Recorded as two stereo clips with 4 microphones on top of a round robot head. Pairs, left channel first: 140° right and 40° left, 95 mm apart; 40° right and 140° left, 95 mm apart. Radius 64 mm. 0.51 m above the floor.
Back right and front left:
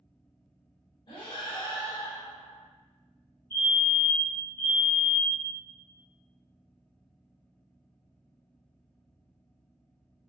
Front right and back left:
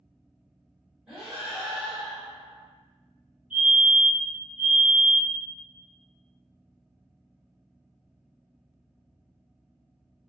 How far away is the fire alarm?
About 1.7 m.